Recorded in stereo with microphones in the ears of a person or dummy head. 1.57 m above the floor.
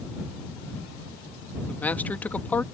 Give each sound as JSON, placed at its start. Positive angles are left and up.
{"t": 1.7, "sound": "a man speaking", "side_deg": 15}